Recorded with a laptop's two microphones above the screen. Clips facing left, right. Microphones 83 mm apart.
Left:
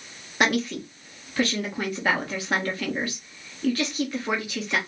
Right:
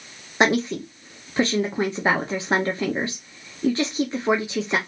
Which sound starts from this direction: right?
A woman speaking, at 0.4 s.